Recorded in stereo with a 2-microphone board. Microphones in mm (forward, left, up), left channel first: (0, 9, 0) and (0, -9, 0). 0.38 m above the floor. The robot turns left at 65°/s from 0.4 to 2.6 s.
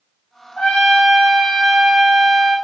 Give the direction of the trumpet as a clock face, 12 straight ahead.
8 o'clock.